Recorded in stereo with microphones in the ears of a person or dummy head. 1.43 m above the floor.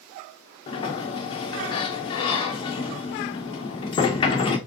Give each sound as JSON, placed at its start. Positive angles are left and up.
{"t": 0.7, "sound": "a sliding door", "side_deg": 35, "distance_m": 0.8}